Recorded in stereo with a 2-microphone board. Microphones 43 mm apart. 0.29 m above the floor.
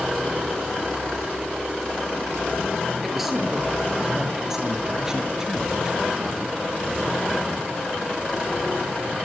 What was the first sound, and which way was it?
A man speaking, 5° right (ahead or behind).